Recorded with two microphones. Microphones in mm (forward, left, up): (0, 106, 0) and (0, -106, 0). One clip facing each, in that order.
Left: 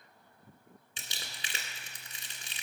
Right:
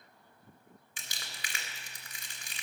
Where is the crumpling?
25° left (ahead or behind), 1.8 m.